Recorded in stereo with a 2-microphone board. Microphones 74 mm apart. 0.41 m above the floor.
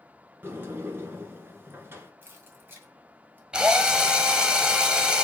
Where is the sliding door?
30° right (ahead or behind), 1.4 m.